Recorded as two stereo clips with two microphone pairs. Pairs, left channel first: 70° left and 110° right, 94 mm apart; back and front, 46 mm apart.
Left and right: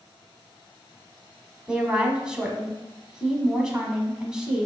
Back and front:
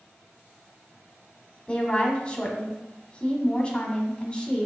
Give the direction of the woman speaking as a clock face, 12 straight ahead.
6 o'clock.